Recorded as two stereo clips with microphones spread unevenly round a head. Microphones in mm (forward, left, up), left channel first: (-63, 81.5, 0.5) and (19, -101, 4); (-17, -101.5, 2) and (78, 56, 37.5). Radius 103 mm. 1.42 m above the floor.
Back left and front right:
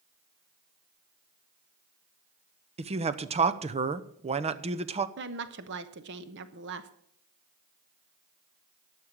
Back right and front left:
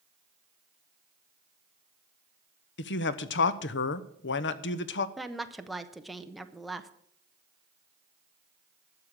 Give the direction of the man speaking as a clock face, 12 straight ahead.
4 o'clock.